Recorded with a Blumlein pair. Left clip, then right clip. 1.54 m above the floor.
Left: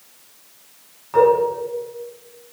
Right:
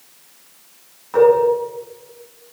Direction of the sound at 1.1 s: Straight ahead.